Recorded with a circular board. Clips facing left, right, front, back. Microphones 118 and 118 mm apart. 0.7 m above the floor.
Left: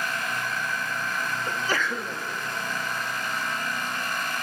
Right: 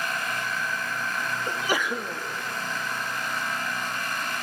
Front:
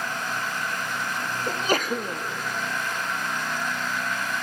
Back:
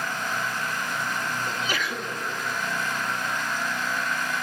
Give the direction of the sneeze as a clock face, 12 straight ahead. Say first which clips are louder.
Right 2 dB, front 5 dB; 1 o'clock.